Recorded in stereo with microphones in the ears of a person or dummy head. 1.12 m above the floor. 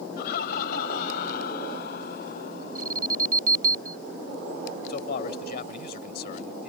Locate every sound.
0.2 s laughter: 55° left (ahead or behind); by 3.4 s 60° left (ahead or behind)
2.8 s an alarm: 45° right (ahead or behind)
4.9 s a man speaking: 50° left (ahead or behind)